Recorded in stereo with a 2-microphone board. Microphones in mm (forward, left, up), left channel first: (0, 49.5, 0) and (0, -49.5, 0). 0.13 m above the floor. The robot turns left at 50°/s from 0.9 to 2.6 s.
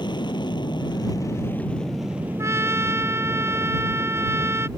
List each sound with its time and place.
0.0 s an aircraft: 50° left; by 4.8 s 35° right
2.4 s a trumpet: 30° right (ahead or behind); by 4.7 s 25° right (ahead or behind)